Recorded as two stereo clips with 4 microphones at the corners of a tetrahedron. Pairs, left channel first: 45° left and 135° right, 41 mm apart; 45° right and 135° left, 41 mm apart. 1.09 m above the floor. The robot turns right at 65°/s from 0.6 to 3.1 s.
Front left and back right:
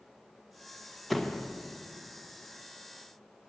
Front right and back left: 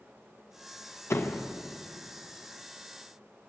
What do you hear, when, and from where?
1.1 s a door slam: 45° right, 0.5 m; by 1.5 s 15° right, 0.5 m